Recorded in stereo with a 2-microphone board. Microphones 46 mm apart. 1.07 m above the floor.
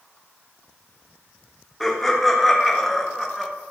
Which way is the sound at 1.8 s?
Centre (ahead or behind).